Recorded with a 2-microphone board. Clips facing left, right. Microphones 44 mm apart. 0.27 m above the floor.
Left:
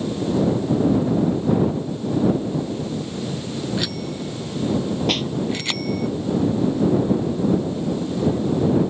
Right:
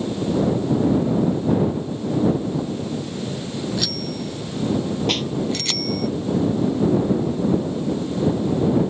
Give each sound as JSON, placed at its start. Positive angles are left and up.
{"t": 3.8, "sound": "a bicycle bell", "side_deg": 20}
{"t": 5.1, "sound": "a snare drum", "side_deg": 5}